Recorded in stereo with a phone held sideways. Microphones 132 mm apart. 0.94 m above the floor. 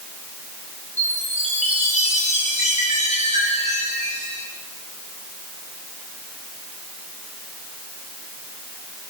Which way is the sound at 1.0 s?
65° left (ahead or behind).